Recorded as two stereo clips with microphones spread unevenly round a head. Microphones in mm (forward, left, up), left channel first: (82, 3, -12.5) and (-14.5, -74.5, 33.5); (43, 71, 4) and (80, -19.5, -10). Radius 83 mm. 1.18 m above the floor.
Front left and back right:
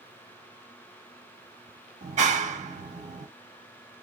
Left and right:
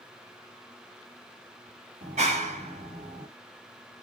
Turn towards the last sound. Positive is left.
turn(degrees=-110)